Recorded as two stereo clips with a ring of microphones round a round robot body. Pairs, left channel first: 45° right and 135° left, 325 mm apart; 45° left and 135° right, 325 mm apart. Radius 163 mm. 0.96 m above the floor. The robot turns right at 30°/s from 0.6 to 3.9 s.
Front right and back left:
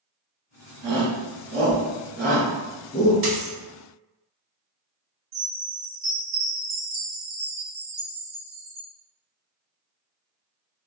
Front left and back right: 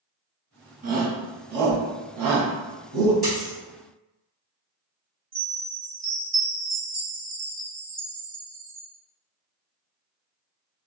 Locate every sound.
0.8 s a shout: 160° left, 1.1 m; by 3.1 s 135° right, 1.1 m
3.2 s a dropped coin: 155° left, 2.0 m; by 3.5 s 165° left, 2.0 m
5.3 s a chime: 170° left, 1.7 m